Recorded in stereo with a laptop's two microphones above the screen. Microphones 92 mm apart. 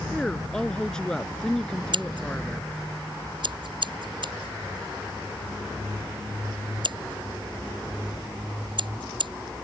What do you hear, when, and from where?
0.1 s a woman speaking: 5° left (ahead or behind)
1.9 s scissors: 55° right (ahead or behind)